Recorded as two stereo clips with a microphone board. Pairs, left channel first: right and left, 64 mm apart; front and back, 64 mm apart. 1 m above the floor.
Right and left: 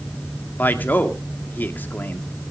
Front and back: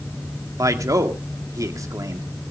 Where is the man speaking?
150° right, 2 m.